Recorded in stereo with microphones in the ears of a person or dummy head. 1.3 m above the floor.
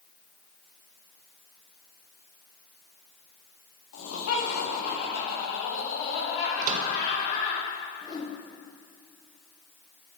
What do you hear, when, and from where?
3.9 s laughter: 85° left, 2.5 m; by 7.6 s 40° left (ahead or behind), 1.7 m
6.6 s a microwave: 55° right (ahead or behind), 0.7 m
8.0 s a whoosh: 20° left (ahead or behind), 1.2 m